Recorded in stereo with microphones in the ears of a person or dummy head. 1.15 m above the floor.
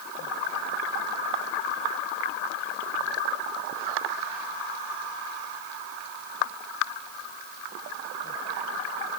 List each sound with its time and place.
Only background noise.